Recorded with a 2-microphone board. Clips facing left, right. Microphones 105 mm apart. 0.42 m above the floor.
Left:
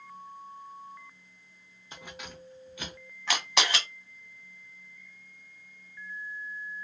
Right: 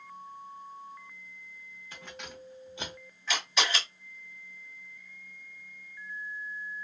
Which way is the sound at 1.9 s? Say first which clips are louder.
Left 1 dB; 20° left (ahead or behind).